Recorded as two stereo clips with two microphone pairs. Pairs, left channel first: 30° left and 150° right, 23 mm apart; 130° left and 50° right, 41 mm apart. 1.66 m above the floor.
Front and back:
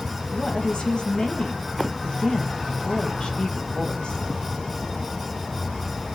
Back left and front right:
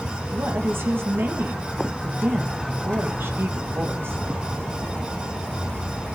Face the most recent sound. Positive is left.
turn(degrees=-20)